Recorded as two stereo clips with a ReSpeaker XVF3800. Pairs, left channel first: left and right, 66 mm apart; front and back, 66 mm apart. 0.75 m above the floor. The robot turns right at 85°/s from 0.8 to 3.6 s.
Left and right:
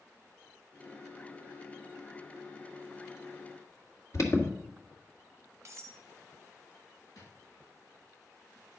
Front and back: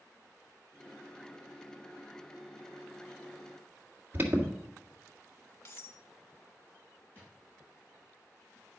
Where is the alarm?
120° left, 1.8 m.